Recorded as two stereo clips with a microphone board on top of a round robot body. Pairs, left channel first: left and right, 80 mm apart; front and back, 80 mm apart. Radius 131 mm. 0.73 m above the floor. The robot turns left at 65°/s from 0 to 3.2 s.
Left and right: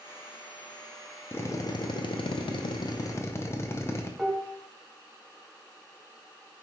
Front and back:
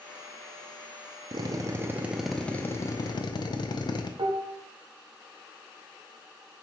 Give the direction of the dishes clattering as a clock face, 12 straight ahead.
6 o'clock.